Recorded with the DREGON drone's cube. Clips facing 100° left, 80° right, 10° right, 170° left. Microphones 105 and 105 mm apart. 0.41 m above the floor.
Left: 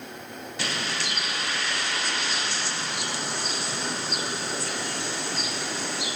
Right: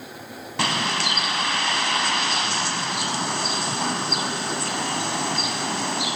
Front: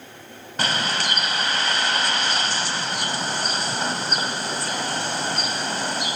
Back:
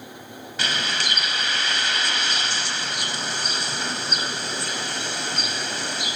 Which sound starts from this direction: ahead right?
A bird, at 0.6 s.